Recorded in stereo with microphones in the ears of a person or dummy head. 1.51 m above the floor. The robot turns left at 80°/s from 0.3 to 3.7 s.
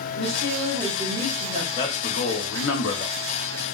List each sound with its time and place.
0.2 s a woman speaking: 40° left, 1.5 m; by 1.7 s 65° right, 1.5 m
1.8 s a man speaking: 155° left, 0.8 m; by 3.1 s 45° left, 0.8 m